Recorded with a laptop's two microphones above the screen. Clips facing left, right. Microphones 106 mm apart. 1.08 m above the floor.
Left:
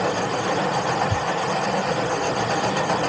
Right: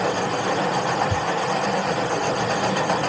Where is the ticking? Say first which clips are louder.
Right 1 dB; 45° right (ahead or behind), 4 m.